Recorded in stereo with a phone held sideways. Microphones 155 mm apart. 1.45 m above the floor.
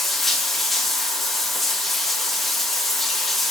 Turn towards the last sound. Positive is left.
turn(degrees=0)  # may be behind; listen again after turning